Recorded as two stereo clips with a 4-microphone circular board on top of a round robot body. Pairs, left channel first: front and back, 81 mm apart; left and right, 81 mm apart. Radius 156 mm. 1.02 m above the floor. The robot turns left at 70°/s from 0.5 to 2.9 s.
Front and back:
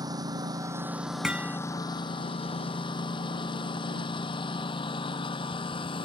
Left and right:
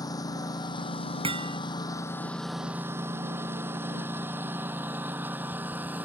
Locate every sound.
0.0 s a lawn mower: 135° left; by 6.0 s 20° right
1.2 s hammering: 95° right; by 1.6 s 120° right